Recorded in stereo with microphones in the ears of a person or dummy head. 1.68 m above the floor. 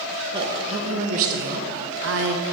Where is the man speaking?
30° right (ahead or behind), 1.3 m; by 2.4 s 60° right (ahead or behind), 0.9 m.